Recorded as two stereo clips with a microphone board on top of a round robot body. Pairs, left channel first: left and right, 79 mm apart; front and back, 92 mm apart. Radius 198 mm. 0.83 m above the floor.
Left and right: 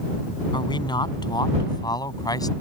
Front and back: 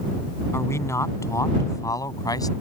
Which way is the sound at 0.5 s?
65° left.